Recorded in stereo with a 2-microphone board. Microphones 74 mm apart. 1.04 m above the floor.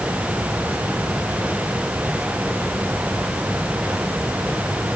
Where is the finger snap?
No finger snap in this recording.